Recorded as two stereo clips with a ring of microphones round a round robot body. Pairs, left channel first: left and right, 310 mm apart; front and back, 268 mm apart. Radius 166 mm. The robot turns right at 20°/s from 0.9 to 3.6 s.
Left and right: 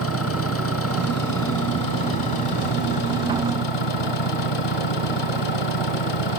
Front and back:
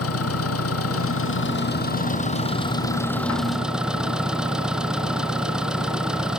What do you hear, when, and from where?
0.0 s an engine running: 40° left; by 6.4 s 95° left